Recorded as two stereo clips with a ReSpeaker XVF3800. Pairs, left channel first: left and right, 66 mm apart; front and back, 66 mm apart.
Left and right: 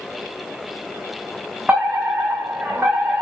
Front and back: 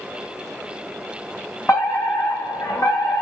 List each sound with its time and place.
1.7 s a fire alarm: 30° right, 3.5 m